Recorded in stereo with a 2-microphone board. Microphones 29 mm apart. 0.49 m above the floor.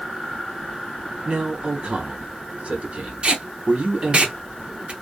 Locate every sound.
1.2 s a man speaking: 45° right (ahead or behind), 1.3 m
3.2 s tape being pulled: 40° right (ahead or behind), 0.7 m